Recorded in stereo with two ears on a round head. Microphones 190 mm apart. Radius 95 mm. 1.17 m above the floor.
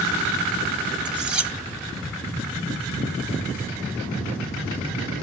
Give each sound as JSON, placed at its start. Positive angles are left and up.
{"t": 1.1, "sound": "cutlery clinking", "side_deg": -5, "distance_m": 0.5}